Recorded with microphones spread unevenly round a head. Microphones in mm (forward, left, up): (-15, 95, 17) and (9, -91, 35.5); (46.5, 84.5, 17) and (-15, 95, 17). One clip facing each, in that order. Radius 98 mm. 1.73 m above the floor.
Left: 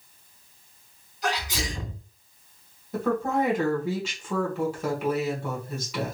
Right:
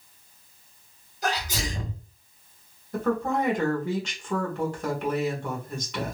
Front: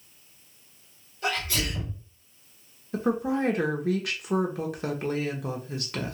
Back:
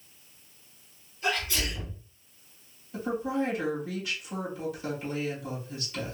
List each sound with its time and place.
1.2 s a sneeze: 35° right, 1.9 m
2.9 s a woman speaking: 10° left, 0.9 m